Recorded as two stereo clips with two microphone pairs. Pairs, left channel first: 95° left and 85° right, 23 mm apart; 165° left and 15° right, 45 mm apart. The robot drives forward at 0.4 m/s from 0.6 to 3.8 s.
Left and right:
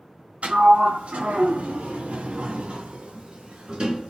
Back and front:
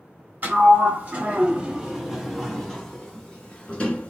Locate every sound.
0.4 s a sliding door: 60° right, 1.0 m; by 4.1 s 135° right, 1.2 m